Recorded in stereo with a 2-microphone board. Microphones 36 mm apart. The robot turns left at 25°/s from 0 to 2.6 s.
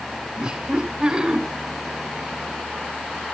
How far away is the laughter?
About 1.6 m.